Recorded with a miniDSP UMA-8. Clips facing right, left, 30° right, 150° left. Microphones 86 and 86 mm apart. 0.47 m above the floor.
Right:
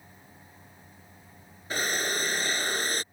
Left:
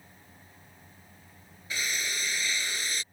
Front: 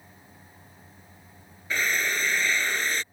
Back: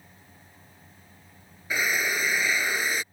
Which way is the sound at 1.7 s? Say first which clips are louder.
Right 5 dB, even; 130° right.